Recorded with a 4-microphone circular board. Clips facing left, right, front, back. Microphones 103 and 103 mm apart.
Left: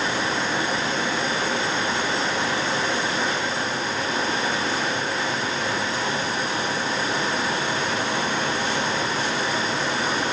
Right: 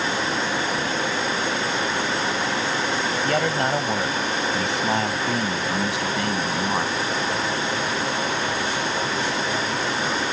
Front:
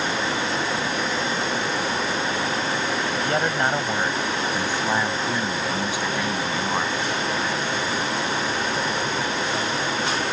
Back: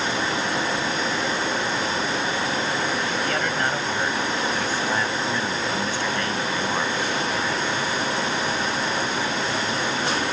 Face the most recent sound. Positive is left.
turn(degrees=-80)